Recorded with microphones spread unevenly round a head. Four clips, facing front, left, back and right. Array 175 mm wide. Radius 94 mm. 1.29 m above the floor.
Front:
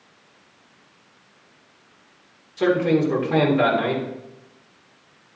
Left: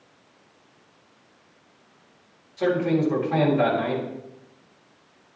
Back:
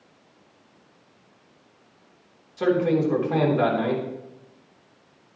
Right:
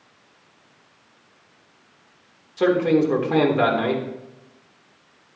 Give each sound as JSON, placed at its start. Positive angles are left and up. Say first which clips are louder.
{"t": 2.6, "sound": "a man speaking", "louder": "right 4 dB, front 2 dB", "azimuth_deg": -85, "distance_m": 3.5}